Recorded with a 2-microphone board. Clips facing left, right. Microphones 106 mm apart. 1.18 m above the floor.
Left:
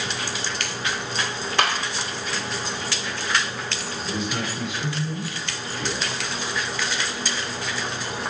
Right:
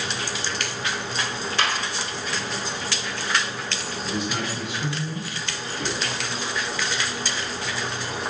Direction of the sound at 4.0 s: 5° right (ahead or behind).